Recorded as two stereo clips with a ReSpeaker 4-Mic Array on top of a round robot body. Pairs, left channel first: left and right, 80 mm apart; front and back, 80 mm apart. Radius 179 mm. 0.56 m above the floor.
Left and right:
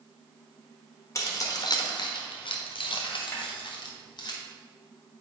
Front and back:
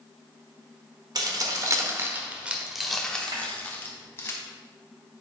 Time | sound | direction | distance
1.1 | keys jangling | 145° left | 1.3 m
3.3 | a snare drum | 150° left | 1.8 m